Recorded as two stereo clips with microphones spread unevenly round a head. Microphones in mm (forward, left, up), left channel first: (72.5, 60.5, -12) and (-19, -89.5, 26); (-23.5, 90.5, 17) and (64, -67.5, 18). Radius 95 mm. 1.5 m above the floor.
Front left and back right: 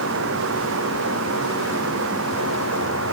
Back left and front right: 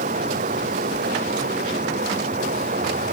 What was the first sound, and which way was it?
Running water, 115° right.